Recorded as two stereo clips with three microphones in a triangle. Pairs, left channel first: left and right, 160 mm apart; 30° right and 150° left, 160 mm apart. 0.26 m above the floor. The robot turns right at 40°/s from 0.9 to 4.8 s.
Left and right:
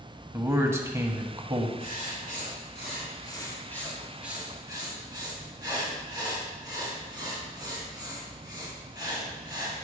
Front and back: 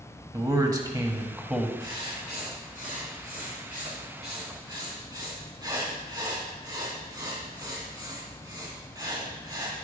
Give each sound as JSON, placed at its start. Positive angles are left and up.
{"t": 0.3, "sound": "a man speaking", "azimuth_deg": -155, "distance_m": 1.1}
{"t": 1.8, "sound": "writing", "azimuth_deg": 90, "distance_m": 2.5}